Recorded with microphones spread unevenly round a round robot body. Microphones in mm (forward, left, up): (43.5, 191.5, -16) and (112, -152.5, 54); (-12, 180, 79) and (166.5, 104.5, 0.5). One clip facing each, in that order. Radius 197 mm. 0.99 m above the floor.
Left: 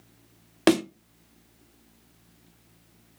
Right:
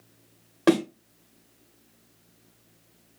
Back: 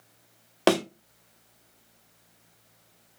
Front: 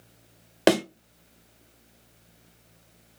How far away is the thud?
About 0.7 m.